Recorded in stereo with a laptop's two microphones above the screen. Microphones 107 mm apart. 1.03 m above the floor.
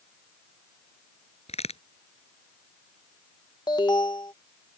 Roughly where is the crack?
Left.